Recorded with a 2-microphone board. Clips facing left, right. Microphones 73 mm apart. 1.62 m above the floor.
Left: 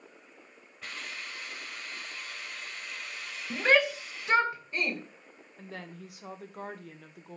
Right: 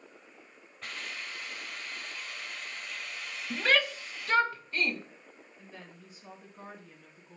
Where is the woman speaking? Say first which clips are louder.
Left 8 dB; 70° left (ahead or behind), 1.3 m.